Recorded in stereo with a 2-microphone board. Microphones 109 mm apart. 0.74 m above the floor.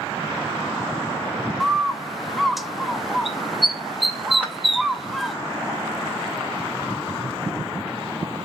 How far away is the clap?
About 3 m.